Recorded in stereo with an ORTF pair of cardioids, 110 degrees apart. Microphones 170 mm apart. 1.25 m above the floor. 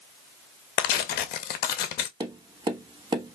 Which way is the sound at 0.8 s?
70° left.